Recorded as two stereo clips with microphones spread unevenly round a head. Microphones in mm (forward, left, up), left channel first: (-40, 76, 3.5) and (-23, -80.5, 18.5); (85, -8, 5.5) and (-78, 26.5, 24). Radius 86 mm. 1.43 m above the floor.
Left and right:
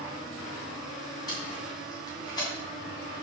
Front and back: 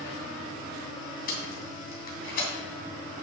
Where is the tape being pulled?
25° left, 2.5 m.